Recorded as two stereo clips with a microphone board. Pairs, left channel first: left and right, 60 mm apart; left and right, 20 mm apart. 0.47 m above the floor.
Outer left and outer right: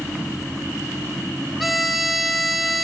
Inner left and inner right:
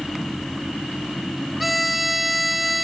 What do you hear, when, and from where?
1.6 s a violin: centre (ahead or behind), 1.3 m